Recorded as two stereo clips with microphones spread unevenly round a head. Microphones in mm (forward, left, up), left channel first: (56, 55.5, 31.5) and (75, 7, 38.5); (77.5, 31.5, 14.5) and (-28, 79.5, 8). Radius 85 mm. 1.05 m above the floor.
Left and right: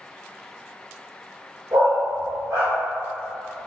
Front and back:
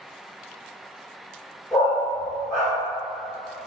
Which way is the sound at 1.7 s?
95° right.